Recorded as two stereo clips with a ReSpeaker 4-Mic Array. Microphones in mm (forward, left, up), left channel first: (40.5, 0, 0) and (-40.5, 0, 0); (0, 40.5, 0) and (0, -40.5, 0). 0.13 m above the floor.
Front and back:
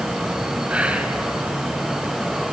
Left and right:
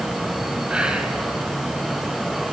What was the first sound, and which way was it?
Whispering, 140° right.